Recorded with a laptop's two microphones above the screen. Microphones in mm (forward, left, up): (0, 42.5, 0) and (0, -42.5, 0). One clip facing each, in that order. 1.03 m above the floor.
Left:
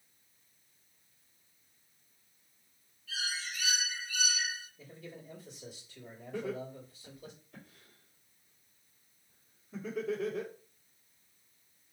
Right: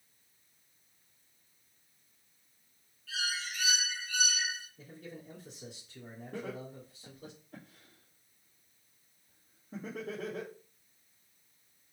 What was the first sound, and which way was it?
A bird, 65° right (ahead or behind).